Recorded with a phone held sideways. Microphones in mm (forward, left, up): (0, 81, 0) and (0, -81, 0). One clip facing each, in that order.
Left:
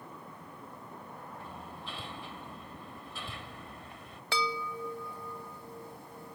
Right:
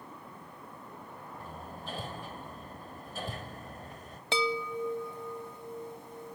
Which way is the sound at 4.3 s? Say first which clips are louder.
Right 4 dB; 20° right (ahead or behind).